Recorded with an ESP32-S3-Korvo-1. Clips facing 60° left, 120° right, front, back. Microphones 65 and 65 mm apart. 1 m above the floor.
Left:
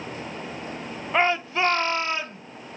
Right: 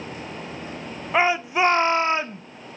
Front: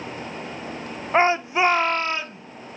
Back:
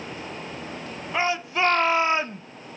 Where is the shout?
40° right, 0.8 m; by 2.4 s 165° right, 0.6 m.